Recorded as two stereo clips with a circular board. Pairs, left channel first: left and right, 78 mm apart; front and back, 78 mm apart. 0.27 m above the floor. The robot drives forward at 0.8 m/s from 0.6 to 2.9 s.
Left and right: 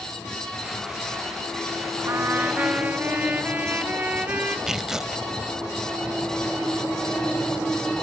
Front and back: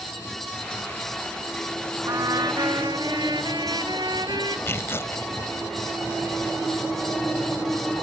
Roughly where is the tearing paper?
Ahead.